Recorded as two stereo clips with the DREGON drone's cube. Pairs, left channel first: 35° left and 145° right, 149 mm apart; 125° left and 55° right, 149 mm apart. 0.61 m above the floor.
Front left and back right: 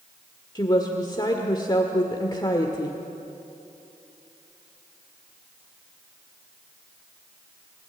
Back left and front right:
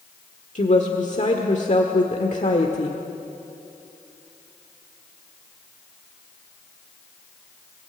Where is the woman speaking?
95° left, 1.6 m.